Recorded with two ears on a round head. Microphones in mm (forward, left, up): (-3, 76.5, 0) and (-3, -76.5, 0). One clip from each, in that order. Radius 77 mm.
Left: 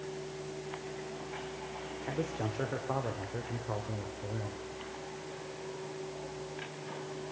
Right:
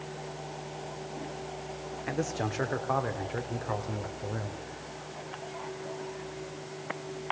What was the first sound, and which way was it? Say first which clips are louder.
A man speaking: right 4 dB; 65° right (ahead or behind).